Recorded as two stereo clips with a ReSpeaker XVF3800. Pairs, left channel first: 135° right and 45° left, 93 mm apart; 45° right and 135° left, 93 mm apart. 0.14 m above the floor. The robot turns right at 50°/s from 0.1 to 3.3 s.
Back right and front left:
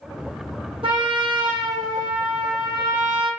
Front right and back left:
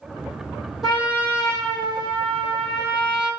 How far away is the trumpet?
About 1.1 m.